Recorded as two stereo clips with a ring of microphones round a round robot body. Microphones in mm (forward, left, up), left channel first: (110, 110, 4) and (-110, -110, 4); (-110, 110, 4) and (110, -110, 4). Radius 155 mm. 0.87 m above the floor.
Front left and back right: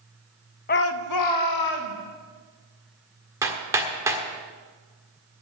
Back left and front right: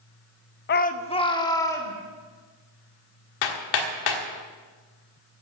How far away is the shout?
About 0.5 m.